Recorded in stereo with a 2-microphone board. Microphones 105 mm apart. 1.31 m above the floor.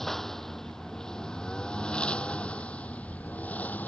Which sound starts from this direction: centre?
A lawn mower, at 0.0 s.